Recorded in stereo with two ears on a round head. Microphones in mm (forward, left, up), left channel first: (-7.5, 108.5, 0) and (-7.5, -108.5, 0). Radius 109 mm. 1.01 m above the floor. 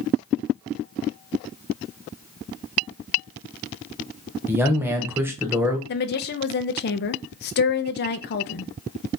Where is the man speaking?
10° right (ahead or behind), 0.8 m.